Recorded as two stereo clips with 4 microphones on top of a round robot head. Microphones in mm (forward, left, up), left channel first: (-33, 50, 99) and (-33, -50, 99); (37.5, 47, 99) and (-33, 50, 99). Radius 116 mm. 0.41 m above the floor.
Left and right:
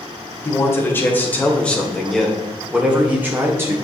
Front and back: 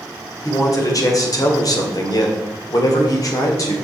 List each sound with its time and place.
0.5 s a man speaking: 30° left, 2.5 m; by 3.8 s 30° right, 2 m